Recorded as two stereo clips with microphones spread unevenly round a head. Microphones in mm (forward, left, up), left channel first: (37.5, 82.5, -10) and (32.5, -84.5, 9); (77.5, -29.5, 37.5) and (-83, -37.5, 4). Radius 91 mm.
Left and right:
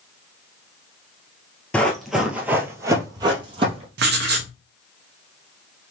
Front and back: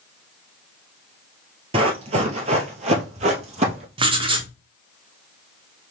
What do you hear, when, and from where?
1.7 s running footsteps: straight behind, 1.4 m; by 3.9 s 130° right, 1.9 m
4.0 s writing: 115° right, 0.9 m